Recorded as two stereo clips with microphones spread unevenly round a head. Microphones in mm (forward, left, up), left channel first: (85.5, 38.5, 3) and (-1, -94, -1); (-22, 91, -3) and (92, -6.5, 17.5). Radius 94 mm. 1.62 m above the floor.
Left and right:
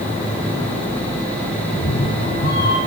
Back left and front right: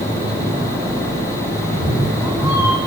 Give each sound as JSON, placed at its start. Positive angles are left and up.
{"t": 1.7, "sound": "a cat meowing", "azimuth_deg": 30, "distance_m": 9.0}